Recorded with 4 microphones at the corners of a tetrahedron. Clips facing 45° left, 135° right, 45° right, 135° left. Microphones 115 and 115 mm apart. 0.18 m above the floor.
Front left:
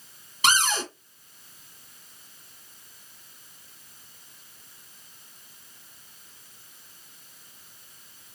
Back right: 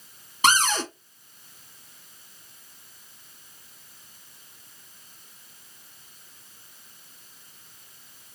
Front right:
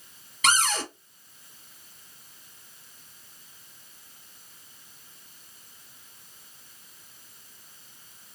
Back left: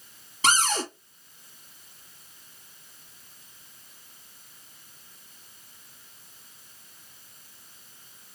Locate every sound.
0.4 s a cupboard door: 175° right, 2.5 m